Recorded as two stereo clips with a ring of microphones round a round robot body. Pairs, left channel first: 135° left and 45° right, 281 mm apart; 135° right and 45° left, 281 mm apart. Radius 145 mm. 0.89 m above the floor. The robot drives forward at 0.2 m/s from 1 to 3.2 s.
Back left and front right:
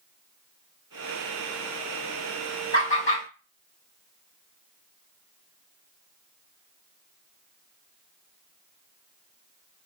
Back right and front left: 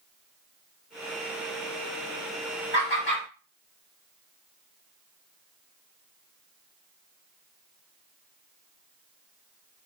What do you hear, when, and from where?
2.7 s laughter: 175° left, 1.9 m; by 3.2 s straight behind, 1.9 m